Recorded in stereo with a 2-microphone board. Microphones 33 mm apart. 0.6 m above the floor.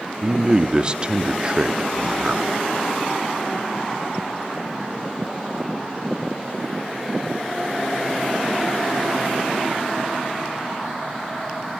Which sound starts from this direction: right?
A man speaking, at 0.2 s.